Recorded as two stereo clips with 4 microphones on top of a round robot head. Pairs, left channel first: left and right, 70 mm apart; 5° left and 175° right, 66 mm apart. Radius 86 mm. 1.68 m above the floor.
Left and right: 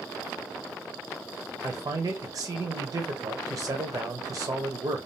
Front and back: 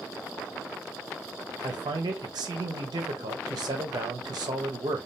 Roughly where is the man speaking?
Behind right.